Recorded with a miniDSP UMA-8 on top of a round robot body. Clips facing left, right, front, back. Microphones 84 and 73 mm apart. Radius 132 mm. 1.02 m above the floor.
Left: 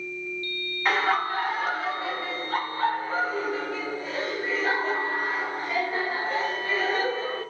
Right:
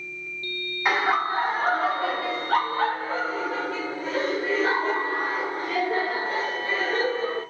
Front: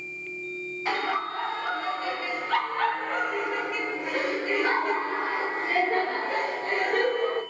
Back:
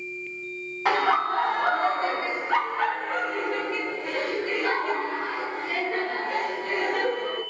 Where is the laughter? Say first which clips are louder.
Right 1 dB, back 6 dB; 170° right, 1.2 m; by 7.4 s 55° right, 3.5 m.